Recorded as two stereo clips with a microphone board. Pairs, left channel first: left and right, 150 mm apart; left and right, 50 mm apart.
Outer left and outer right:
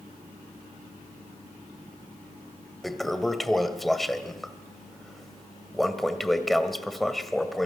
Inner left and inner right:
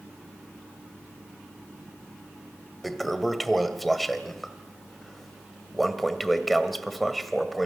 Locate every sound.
2.8 s a toilet flushing: centre (ahead or behind), 1.6 m